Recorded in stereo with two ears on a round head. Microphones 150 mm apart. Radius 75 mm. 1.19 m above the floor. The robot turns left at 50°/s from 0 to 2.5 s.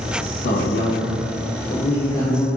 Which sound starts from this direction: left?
A man speaking, at 0.4 s.